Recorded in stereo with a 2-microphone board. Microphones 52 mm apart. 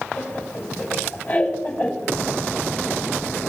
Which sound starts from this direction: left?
Laughter, at 0.2 s.